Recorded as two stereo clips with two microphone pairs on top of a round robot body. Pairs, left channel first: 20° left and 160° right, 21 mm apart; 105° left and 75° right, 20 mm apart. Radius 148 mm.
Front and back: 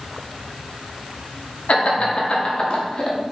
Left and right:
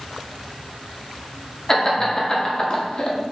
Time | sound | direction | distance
1.7 | laughter | 45° left | 2.5 m